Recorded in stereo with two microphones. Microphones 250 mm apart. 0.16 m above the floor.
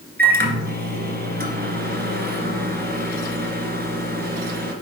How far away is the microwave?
About 1.6 m.